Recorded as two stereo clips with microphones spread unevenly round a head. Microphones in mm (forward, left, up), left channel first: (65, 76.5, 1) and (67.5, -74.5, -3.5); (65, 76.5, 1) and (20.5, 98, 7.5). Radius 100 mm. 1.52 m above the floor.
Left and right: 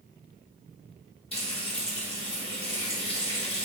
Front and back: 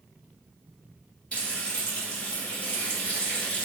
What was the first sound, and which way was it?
Frying, 40° left.